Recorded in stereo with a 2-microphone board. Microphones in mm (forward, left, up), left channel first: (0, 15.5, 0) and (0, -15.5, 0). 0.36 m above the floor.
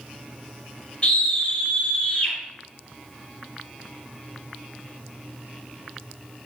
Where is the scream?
40° left (ahead or behind), 1.5 m.